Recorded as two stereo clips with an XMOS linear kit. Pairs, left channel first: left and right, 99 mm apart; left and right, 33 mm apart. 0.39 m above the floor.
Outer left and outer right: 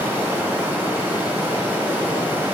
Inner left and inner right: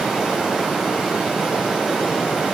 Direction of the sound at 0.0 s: 25° right (ahead or behind).